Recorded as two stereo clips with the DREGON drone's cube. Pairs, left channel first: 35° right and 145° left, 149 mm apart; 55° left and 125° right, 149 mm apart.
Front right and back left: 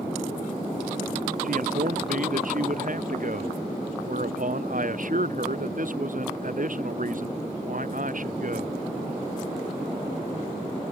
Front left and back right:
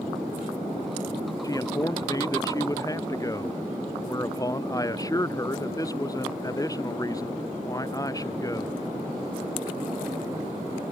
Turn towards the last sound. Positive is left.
turn(degrees=120)